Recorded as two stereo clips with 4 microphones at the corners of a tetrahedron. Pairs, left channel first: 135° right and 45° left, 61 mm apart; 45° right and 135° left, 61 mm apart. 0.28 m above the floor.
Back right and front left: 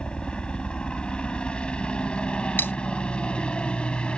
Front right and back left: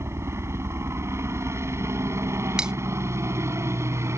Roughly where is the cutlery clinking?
Behind.